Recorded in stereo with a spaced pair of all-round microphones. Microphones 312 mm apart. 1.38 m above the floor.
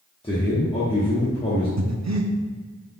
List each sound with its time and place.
0.2 s a man speaking: 20° left (ahead or behind), 1.0 m
1.8 s breathing: 60° right (ahead or behind), 0.5 m